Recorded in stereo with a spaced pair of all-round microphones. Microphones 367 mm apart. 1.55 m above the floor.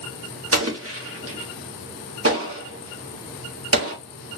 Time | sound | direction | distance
0.5 | an explosion | 40° right (ahead or behind) | 1.2 m